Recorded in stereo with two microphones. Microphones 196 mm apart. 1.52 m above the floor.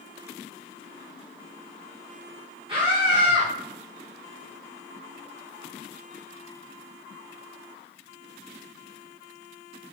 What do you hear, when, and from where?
2.7 s a scream: 25° right (ahead or behind), 1.6 m